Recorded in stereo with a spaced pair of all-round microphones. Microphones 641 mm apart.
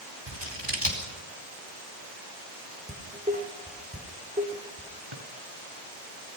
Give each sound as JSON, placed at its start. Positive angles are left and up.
{"t": 0.3, "sound": "scissors", "side_deg": -40, "distance_m": 4.0}
{"t": 2.9, "sound": "dishes clattering", "side_deg": -10, "distance_m": 2.5}
{"t": 5.1, "sound": "a drawer", "side_deg": -45, "distance_m": 3.5}